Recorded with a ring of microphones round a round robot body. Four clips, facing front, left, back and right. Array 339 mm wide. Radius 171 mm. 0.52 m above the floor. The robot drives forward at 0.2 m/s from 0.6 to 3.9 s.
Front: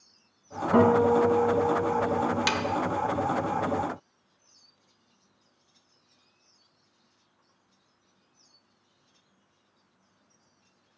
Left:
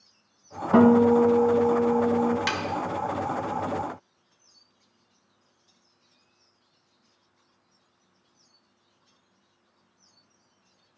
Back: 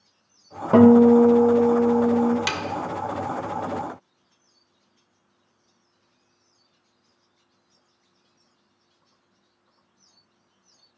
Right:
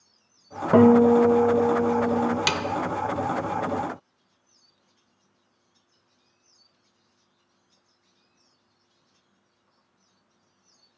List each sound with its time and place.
0.7 s a guitar: 130° right, 1.3 m; by 2.4 s 140° right, 1.5 m
2.5 s a snare drum: 90° right, 0.6 m